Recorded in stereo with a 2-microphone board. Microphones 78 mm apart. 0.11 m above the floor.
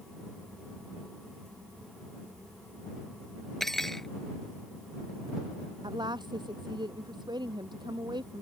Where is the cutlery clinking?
5° left (ahead or behind).